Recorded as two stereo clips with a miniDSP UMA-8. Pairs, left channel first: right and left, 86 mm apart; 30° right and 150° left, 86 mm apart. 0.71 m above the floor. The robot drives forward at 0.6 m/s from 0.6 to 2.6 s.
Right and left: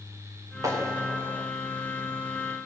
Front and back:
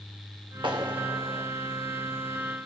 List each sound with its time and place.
0.6 s a clap: 140° left, 1.8 m; by 1.5 s 145° left, 2 m